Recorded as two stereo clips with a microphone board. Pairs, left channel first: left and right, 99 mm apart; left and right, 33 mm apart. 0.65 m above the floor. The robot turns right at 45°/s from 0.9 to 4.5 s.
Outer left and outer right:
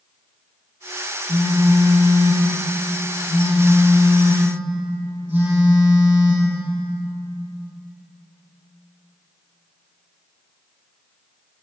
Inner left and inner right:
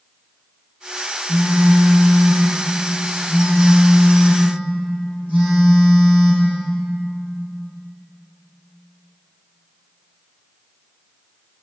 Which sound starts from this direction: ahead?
A phone buzzing, at 1.3 s.